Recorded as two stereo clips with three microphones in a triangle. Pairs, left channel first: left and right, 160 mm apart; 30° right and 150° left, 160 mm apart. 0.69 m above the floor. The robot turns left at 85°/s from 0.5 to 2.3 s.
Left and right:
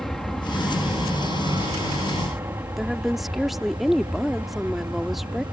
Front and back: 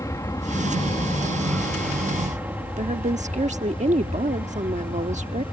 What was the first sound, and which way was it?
An aircraft, 5° left.